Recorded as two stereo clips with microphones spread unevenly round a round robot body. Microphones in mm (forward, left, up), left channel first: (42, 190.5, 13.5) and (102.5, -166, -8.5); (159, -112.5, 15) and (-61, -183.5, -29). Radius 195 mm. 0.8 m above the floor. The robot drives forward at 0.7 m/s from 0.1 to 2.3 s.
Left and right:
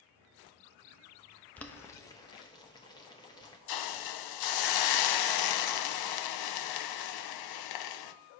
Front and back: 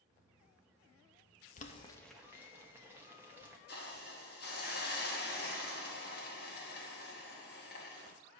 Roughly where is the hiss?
Left.